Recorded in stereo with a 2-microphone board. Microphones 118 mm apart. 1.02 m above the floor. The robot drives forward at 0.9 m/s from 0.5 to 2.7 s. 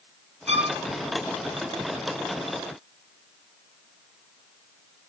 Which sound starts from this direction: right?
A violin, at 0.5 s.